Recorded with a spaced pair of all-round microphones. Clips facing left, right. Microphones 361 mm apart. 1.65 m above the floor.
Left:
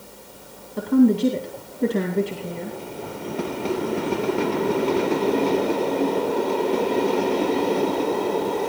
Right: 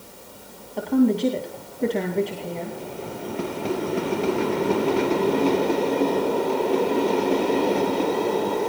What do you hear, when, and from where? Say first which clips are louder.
0.8 s a woman speaking: left 3 dB; 20° left (ahead or behind), 2.5 m